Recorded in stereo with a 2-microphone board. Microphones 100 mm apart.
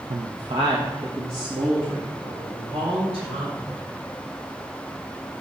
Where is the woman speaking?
60° right (ahead or behind), 0.5 m; by 3.7 s 70° right (ahead or behind), 4.5 m.